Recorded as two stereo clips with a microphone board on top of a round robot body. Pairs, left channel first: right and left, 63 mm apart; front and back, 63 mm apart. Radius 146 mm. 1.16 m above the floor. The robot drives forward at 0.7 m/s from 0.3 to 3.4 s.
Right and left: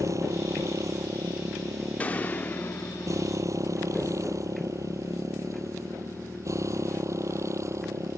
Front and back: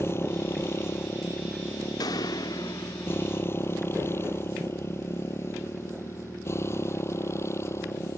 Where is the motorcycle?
50° left.